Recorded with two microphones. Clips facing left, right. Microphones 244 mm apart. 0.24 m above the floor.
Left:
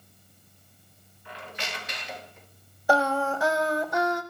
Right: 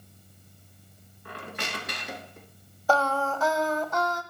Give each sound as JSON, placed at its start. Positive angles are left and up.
{"t": 1.2, "sound": "a squeak", "side_deg": -55, "distance_m": 0.9}
{"t": 2.9, "sound": "singing", "side_deg": 10, "distance_m": 0.7}